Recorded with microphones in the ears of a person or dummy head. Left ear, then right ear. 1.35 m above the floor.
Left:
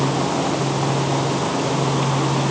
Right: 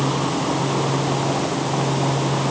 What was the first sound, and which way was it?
Only background noise.